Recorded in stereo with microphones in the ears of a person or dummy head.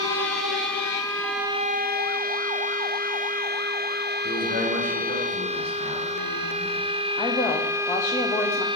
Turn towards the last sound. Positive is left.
turn(degrees=20)  # may be behind; listen again after turning